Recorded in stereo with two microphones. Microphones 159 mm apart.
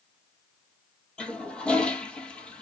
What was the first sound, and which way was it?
A toilet flushing, 5° left (ahead or behind).